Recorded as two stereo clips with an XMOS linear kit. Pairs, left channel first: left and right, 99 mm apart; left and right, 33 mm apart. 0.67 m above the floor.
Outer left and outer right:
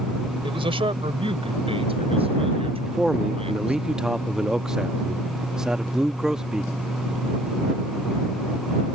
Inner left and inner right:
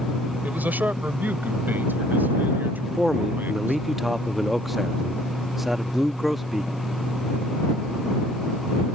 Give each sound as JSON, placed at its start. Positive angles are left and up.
{"t": 0.4, "sound": "a man speaking", "side_deg": -65}
{"t": 2.8, "sound": "a man speaking", "side_deg": -5}